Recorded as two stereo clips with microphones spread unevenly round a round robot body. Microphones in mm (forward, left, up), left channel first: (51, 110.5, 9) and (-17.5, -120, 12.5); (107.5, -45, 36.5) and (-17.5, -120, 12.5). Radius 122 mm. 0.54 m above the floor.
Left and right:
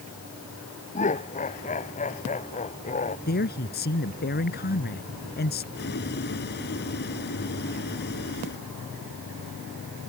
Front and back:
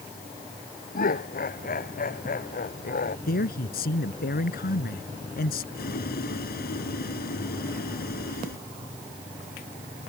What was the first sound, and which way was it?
Laughter, 10° left.